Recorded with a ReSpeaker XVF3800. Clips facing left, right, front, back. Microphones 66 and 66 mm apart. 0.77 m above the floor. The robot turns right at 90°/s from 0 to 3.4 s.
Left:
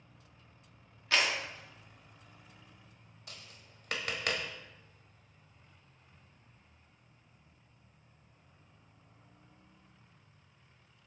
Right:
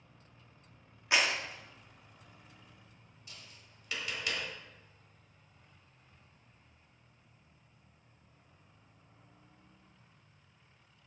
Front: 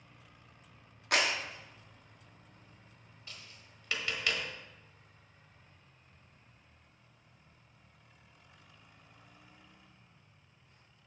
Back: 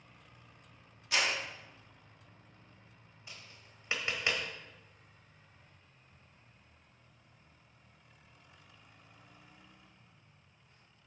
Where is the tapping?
105° left, 1.1 m; by 4.4 s 120° left, 1.1 m.